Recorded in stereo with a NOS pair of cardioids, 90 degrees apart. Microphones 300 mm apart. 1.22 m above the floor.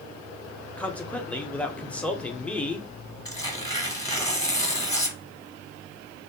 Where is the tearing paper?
10° left, 1.0 m.